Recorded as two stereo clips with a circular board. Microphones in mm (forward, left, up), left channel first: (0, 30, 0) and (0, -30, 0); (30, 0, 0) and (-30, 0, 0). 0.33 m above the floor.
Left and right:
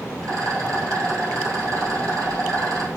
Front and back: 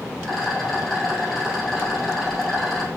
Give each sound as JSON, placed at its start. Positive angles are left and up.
{"t": 0.2, "sound": "a rattle", "azimuth_deg": -85, "distance_m": 1.5}